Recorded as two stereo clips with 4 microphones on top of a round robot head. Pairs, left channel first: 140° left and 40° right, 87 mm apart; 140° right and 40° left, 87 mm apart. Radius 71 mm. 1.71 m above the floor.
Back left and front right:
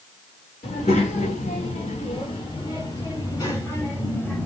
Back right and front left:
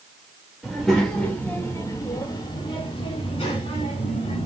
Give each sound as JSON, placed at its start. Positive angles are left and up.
{"t": 0.6, "sound": "a child speaking", "azimuth_deg": 125, "distance_m": 1.7}